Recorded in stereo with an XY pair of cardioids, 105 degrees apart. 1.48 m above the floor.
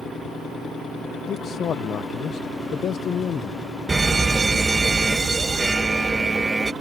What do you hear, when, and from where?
1.3 s a man speaking: 55° left
3.9 s a fire alarm: 25° right